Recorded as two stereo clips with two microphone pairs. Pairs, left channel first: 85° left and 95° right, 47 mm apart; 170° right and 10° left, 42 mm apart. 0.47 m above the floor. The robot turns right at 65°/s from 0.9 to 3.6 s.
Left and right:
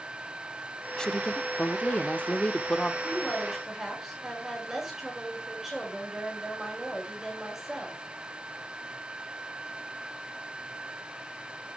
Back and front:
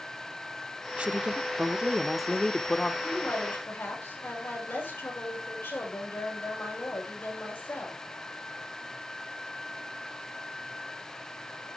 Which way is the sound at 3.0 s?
140° left.